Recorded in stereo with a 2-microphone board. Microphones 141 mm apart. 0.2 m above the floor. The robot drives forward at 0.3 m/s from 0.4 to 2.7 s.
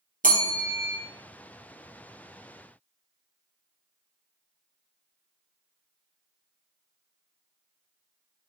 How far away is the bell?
About 1.1 m.